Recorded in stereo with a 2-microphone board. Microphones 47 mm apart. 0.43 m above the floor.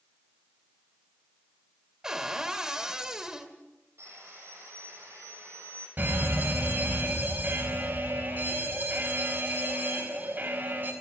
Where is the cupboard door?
15° right (ahead or behind), 2 m.